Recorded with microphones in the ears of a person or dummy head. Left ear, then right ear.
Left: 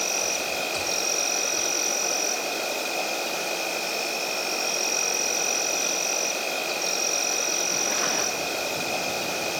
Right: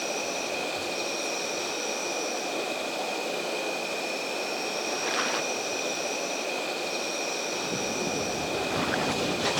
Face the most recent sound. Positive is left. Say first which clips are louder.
# left 4 dB
turn(degrees=55)  # may be behind; listen again after turning